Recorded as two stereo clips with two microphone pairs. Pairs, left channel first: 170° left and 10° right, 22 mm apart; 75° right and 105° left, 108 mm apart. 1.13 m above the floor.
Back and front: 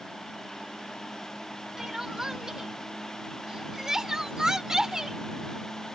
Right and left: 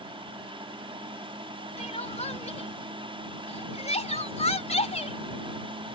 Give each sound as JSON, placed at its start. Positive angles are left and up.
{"t": 1.8, "sound": "crying", "azimuth_deg": -70}